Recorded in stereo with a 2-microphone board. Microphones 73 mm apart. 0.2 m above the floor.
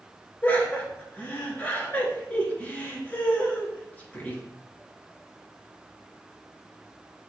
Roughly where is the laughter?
Left.